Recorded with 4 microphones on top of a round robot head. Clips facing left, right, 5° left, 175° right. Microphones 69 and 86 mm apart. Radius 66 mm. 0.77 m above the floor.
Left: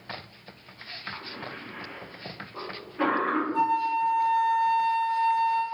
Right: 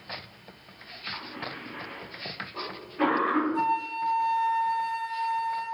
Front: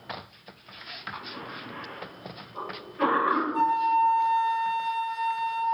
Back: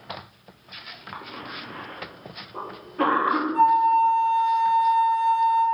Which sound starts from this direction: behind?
A cough, at 1.1 s.